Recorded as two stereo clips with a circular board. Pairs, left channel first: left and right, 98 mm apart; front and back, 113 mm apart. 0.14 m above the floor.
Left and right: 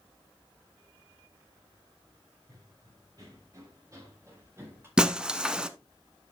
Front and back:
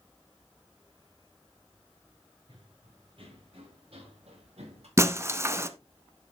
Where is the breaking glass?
160° right, 0.8 m.